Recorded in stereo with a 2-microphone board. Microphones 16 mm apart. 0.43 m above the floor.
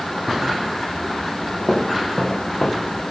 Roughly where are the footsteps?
Left.